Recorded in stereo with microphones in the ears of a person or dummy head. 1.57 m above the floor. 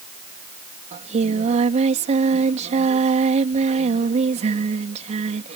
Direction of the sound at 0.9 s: 35° right (ahead or behind).